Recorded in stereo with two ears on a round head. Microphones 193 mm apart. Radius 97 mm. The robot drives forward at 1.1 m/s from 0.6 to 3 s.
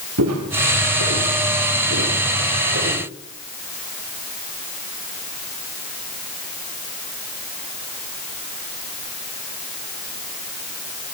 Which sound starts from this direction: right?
Footsteps, at 0.2 s.